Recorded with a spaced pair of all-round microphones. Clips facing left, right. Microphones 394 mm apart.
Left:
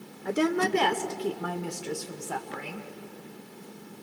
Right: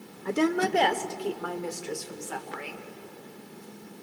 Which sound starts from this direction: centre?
A woman speaking, at 0.2 s.